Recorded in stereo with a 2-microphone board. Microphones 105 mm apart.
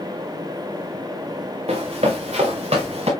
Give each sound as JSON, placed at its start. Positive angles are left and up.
{"t": 1.7, "sound": "running footsteps", "side_deg": -80, "distance_m": 3.5}